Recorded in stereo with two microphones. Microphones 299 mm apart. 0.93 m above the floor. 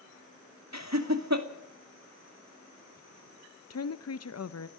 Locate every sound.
0.7 s laughter: 60° right (ahead or behind), 2 m
3.7 s a woman speaking: 55° left (ahead or behind), 0.6 m